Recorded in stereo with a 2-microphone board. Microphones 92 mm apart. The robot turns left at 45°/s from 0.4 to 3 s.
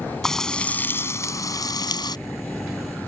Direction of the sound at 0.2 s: 170° left.